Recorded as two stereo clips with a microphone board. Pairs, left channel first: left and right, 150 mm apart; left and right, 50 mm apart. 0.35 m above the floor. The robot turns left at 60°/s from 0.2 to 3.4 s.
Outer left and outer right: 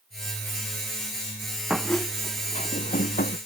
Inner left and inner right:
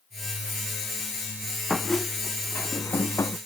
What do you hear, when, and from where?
1.7 s a squeak: 175° right; by 3.4 s 85° left